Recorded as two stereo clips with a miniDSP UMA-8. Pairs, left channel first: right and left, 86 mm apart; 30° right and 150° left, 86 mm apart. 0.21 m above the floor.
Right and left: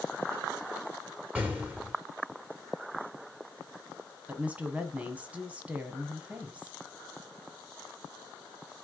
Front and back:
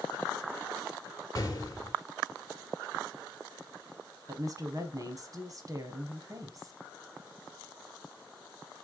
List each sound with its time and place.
1.4 s an explosion: 20° left, 2.0 m
4.3 s a woman speaking: 155° left, 1.4 m